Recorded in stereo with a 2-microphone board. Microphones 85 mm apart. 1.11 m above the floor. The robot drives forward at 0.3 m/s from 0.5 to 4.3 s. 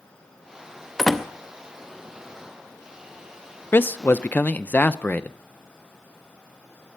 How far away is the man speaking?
About 0.5 m.